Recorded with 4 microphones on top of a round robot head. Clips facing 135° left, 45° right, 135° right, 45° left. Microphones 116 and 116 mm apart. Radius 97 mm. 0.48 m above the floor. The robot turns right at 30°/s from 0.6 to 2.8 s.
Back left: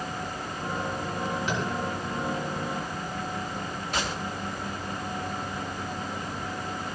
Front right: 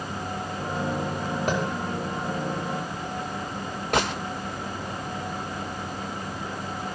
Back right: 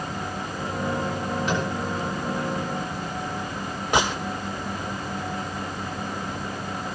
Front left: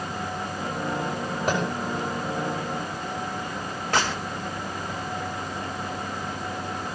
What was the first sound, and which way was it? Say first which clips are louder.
Tapping: front right 7 dB, front left 3 dB; straight ahead.